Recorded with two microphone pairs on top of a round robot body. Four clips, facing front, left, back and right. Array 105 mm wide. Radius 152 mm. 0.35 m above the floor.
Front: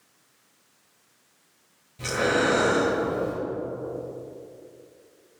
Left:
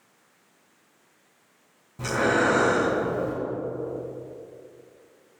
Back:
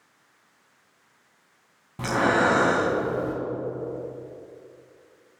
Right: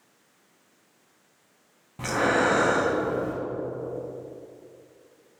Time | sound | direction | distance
2.0 | breathing | 160° right | 2 m